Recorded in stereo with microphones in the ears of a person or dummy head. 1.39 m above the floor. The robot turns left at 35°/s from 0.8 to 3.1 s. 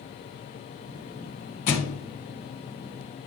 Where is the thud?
45° left (ahead or behind), 1.9 m; by 2.0 s 50° left (ahead or behind), 1.9 m.